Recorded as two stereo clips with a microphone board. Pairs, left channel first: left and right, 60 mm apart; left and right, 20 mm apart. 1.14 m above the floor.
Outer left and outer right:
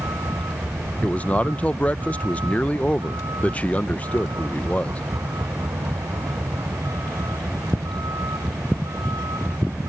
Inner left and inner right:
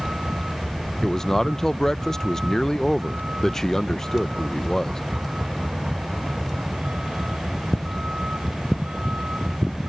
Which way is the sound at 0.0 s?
85° right.